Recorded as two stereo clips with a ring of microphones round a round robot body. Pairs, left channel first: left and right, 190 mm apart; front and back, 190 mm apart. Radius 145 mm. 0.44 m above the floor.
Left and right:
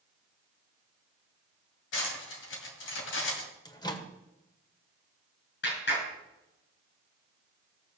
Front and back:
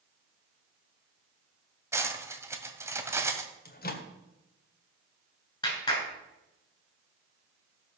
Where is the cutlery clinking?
105° left, 2 m.